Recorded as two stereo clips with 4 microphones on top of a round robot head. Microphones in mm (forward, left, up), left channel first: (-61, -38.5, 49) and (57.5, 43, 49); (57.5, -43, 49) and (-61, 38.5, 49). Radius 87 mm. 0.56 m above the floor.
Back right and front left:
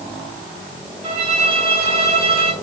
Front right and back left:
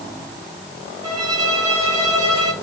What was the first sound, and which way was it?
A violin, 80° left.